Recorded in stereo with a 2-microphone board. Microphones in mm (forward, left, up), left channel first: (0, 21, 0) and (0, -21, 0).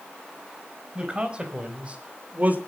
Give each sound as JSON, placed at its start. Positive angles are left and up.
{"t": 0.9, "sound": "a man speaking", "side_deg": -20, "distance_m": 5.0}